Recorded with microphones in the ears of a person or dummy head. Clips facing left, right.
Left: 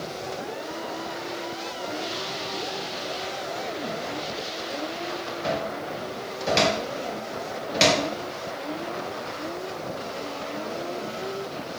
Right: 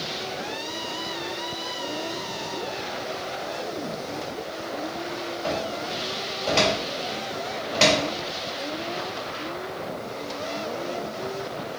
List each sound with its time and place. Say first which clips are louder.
5.4 s a cupboard door: left 1 dB; 25° left (ahead or behind), 2 m